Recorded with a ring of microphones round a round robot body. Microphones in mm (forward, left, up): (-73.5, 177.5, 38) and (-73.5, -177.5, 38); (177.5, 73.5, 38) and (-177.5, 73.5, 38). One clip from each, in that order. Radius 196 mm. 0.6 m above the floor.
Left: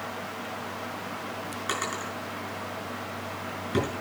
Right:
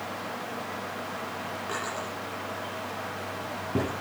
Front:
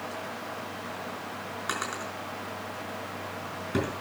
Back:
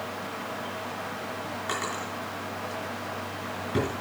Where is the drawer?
60° left, 5.5 m.